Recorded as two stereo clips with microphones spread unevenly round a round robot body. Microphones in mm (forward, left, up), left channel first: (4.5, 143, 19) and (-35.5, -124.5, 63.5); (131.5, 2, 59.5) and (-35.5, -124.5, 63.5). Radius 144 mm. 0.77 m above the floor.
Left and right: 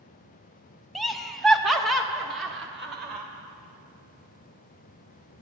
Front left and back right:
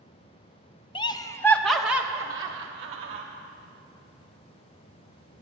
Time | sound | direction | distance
0.9 | laughter | 10° left | 1.0 m